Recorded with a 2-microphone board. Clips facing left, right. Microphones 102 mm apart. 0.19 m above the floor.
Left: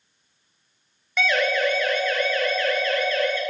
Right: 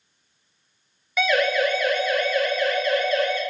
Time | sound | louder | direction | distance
1.2 | a siren | right 2 dB | 5° right (ahead or behind) | 3.5 m